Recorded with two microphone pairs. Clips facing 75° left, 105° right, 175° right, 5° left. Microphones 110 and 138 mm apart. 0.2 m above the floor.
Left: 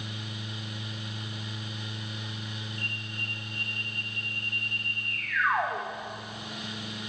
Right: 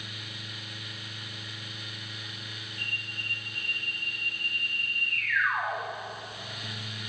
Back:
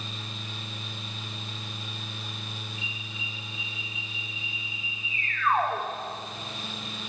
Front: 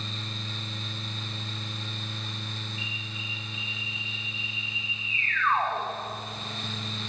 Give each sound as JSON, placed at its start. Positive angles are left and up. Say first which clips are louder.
{"t": 2.8, "sound": "an alarm", "louder": "left 3 dB, front 1 dB", "azimuth_deg": 125, "distance_m": 8.5}